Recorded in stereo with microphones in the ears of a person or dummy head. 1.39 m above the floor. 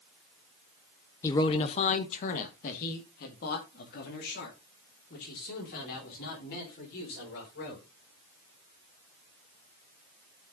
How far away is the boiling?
No boiling in this recording.